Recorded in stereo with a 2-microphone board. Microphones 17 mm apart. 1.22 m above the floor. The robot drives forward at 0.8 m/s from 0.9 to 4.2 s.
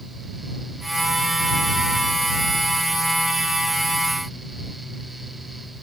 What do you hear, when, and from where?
Only background noise.